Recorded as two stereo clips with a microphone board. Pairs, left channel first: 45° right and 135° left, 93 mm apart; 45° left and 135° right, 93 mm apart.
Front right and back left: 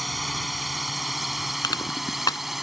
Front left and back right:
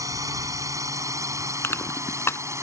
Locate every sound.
0.0 s a drone: 135° right; by 2.6 s 140° right
1.6 s crushing: 10° right